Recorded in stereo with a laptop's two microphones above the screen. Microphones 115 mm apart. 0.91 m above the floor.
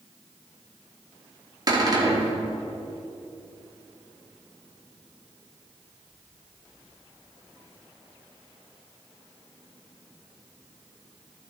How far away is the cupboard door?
About 1.9 m.